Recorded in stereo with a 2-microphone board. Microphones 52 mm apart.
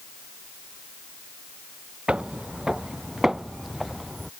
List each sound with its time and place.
2.1 s footsteps: 20° right (ahead or behind); by 4.3 s centre (ahead or behind)